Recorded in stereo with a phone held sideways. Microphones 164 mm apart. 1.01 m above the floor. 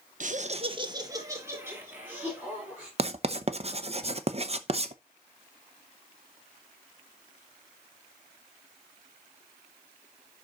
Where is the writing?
40° right (ahead or behind), 0.7 m.